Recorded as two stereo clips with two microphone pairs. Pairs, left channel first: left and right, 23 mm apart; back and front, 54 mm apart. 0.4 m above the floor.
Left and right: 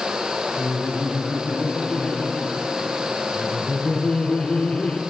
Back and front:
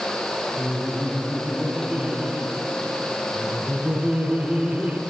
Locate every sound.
0.6 s laughter: 70° left, 5 m